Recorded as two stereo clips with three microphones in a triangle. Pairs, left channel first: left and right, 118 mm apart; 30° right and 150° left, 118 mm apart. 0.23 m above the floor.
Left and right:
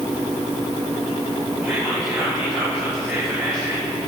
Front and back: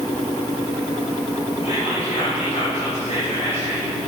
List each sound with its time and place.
1.6 s whispering: 10° right, 5 m